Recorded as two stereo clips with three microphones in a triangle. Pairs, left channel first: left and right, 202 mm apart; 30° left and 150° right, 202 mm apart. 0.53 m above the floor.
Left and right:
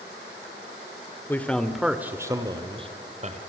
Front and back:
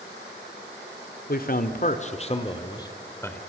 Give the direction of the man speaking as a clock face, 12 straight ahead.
12 o'clock.